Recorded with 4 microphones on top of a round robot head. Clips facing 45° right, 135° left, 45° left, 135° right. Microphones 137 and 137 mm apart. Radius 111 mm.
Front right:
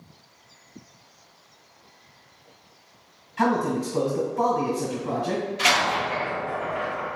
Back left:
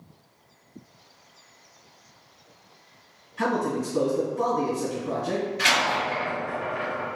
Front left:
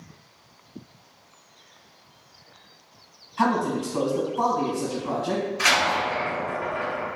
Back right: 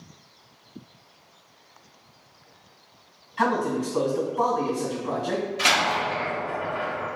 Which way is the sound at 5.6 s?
105° right.